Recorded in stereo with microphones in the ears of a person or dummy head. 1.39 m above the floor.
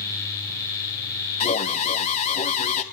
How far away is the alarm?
About 1.3 m.